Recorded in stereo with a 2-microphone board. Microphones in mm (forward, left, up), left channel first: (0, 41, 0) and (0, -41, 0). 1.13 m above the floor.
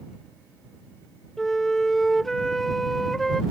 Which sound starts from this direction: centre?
A flute, at 1.4 s.